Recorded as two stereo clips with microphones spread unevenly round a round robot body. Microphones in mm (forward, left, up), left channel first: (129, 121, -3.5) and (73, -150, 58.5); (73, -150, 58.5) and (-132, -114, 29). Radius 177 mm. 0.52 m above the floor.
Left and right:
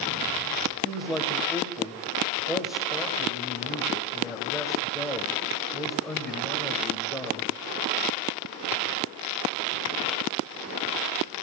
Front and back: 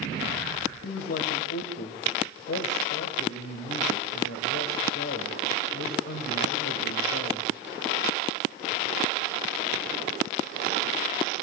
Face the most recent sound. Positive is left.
turn(degrees=-10)